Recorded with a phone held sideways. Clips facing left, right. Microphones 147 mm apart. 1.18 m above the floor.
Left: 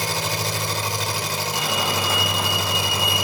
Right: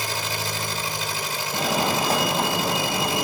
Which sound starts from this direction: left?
An engine running, at 0.0 s.